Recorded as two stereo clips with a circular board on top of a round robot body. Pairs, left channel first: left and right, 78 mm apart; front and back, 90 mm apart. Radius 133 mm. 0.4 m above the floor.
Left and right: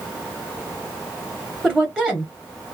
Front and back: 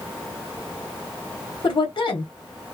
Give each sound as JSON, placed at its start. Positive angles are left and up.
{"t": 1.6, "sound": "a woman speaking", "azimuth_deg": -15, "distance_m": 1.6}